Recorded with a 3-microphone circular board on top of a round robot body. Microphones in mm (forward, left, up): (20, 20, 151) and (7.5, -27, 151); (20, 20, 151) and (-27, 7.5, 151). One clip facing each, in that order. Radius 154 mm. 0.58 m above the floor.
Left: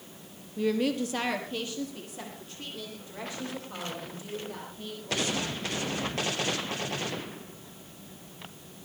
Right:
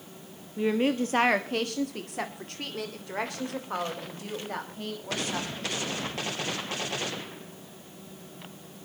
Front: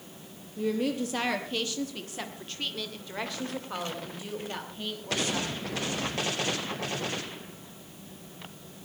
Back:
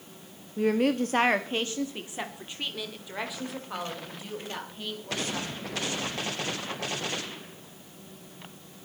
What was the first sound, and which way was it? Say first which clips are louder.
A woman speaking: right 2 dB, back 4 dB; 170° right.